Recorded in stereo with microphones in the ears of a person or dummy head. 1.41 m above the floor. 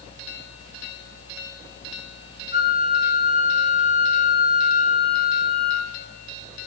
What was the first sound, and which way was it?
A flute, 30° right (ahead or behind).